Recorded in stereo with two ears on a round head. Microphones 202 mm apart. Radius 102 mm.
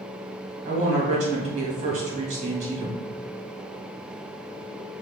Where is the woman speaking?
35° right (ahead or behind), 1.8 m.